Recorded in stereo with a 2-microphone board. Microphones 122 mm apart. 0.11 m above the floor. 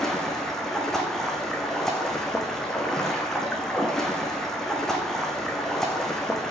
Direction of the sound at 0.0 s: 5° left (ahead or behind).